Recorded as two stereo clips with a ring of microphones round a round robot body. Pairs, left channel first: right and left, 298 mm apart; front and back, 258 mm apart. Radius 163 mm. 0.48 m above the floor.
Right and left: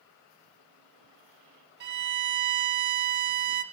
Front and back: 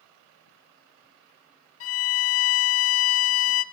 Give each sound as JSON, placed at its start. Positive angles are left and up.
{"t": 1.8, "sound": "a violin", "azimuth_deg": 35, "distance_m": 0.6}